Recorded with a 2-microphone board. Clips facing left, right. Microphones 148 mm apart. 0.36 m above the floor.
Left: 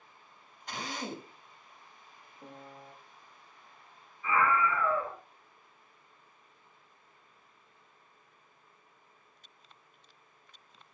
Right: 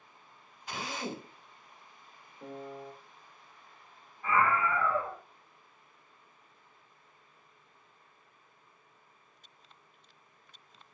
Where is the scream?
60° right (ahead or behind), 1.7 m.